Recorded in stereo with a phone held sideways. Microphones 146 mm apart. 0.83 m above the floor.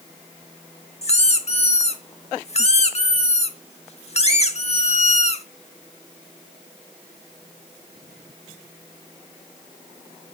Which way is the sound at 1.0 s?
45° left (ahead or behind).